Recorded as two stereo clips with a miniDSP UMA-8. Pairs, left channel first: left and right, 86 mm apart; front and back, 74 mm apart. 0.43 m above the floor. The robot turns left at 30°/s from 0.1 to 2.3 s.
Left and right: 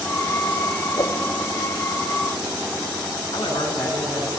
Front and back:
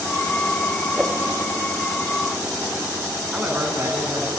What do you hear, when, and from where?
1.0 s a whoosh: 100° left, 2 m; by 1.2 s 95° left, 2 m
3.3 s a man speaking: 110° left, 4.5 m